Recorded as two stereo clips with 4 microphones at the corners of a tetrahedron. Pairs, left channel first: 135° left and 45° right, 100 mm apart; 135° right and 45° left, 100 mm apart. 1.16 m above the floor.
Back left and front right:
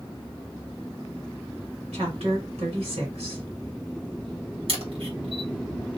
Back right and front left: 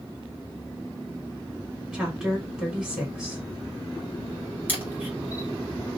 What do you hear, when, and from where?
1.9 s a woman speaking: 40° right, 2 m
4.7 s a camera shutter: 25° right, 1.6 m